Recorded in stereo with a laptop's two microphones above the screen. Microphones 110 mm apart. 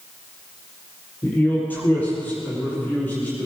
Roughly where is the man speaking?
Centre.